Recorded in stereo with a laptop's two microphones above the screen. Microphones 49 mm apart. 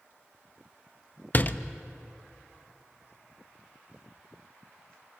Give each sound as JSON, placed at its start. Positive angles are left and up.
{"t": 1.3, "sound": "a door slam", "side_deg": 40, "distance_m": 0.6}